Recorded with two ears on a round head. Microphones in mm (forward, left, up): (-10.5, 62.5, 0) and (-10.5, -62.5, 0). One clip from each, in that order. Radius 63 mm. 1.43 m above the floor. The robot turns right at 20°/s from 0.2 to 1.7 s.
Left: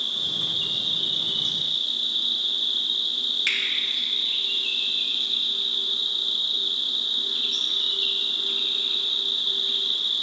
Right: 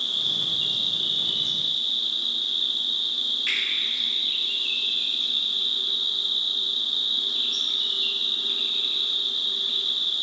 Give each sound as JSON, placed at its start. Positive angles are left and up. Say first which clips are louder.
{"t": 0.0, "sound": "an insect", "louder": "right 1 dB", "azimuth_deg": -25, "distance_m": 1.2}
{"t": 3.5, "sound": "a finger snap", "louder": "left 2 dB", "side_deg": 85, "distance_m": 3.0}